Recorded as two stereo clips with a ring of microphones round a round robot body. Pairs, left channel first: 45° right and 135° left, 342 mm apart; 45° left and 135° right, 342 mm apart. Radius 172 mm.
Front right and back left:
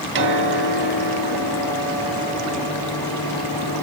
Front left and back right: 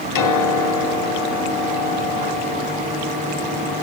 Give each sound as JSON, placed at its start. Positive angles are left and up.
{"t": 0.1, "sound": "a piano", "azimuth_deg": 80, "distance_m": 3.0}